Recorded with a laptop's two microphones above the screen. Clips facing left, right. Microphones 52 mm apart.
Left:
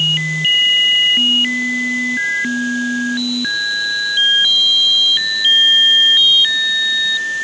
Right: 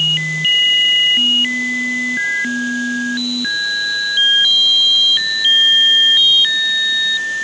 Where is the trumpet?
No trumpet in this recording.